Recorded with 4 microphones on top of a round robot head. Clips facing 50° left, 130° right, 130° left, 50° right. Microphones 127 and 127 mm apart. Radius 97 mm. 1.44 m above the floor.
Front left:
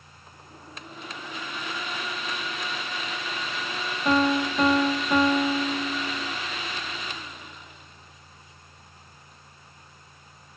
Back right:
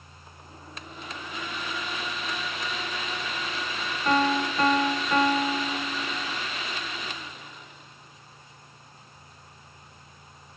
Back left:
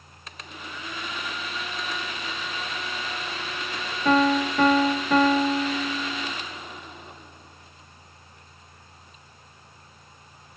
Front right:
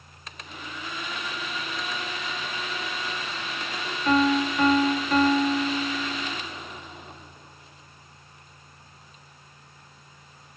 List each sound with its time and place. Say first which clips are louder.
4.0 s a piano: front left 2 dB, back left 1 dB; 130° left, 0.9 m